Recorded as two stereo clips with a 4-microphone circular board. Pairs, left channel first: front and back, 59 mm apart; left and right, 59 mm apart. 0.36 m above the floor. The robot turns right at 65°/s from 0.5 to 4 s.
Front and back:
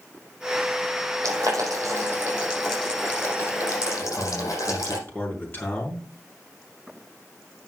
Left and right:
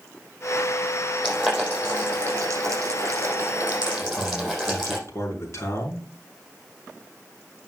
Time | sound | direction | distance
1.2 | boiling | 175° left | 5.5 m
4.0 | a man speaking | 55° left | 5 m